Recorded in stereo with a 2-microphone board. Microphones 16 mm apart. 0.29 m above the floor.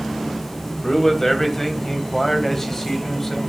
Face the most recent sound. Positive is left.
turn(degrees=25)  # may be behind; listen again after turning